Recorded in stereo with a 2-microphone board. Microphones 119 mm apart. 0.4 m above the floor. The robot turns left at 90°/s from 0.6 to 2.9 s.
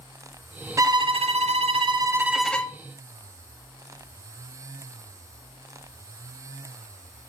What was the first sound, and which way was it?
A violin, 30° right.